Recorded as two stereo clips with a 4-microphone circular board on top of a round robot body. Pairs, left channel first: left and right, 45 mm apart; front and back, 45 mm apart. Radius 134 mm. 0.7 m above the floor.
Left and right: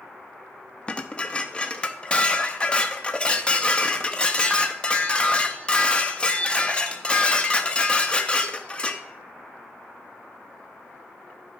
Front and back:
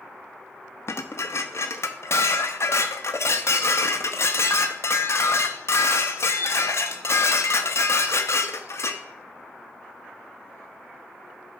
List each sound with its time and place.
0.9 s dishes clattering: 20° left, 0.8 m